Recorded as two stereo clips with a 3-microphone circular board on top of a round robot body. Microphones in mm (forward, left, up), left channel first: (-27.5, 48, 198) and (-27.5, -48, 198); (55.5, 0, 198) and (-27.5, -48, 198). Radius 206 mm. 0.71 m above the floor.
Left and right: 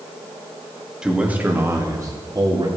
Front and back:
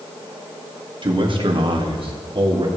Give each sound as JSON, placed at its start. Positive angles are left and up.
{"t": 1.0, "sound": "a man speaking", "azimuth_deg": -170, "distance_m": 2.0}